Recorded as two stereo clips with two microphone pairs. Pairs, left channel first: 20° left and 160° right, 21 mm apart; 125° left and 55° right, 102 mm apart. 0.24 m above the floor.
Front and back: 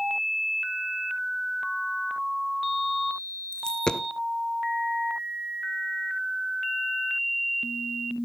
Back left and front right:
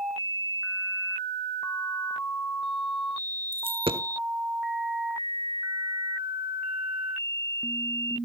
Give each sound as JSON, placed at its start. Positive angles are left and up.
{"t": 3.5, "sound": "a dropped coin", "azimuth_deg": -30, "distance_m": 0.7}